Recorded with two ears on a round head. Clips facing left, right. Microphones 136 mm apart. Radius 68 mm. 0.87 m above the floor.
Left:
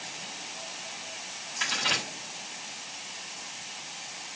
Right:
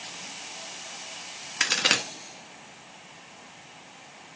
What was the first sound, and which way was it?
A crack, 65° right (ahead or behind).